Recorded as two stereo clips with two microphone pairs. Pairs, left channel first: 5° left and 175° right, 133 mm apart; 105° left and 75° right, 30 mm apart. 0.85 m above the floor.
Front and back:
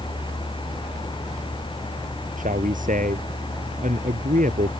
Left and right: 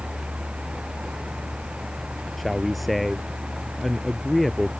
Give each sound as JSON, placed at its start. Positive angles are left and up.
{"t": 2.4, "sound": "a man speaking", "azimuth_deg": -165}